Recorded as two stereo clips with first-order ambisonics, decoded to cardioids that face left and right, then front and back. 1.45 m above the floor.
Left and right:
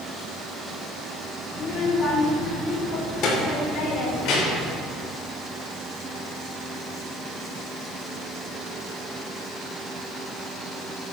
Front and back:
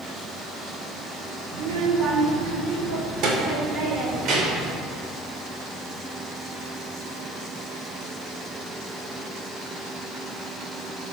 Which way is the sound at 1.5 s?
150° left.